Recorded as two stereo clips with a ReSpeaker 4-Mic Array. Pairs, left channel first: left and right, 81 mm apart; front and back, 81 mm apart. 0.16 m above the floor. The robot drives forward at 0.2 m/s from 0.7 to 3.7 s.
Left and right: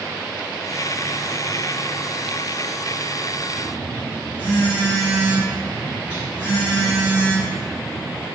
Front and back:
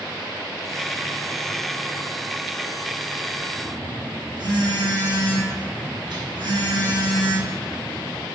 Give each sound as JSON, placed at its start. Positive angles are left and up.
{"t": 3.6, "sound": "a phone buzzing", "azimuth_deg": -160, "distance_m": 1.5}